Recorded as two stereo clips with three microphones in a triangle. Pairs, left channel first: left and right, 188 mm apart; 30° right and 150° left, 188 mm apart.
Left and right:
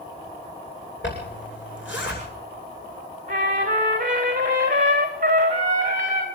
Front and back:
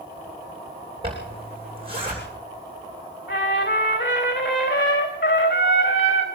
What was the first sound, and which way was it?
A zipper, 90° left.